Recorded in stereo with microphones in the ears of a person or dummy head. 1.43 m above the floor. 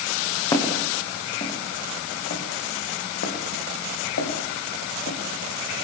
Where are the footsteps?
25° left (ahead or behind), 5.5 m; by 5.2 s 65° left (ahead or behind), 5 m.